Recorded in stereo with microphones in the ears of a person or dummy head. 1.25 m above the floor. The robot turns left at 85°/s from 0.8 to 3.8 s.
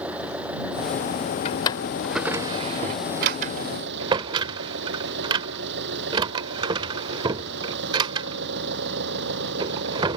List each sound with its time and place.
0.0 s an engine running: 175° right; by 10.2 s 70° right
1.4 s a drawer: 35° left (ahead or behind); by 10.2 s 20° right (ahead or behind)